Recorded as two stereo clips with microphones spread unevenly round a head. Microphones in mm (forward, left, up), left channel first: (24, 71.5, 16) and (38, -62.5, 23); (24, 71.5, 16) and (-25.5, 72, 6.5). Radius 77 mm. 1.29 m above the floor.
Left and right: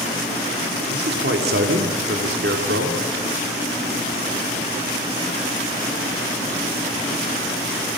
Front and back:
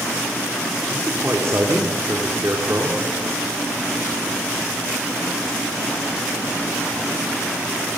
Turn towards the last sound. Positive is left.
turn(degrees=-110)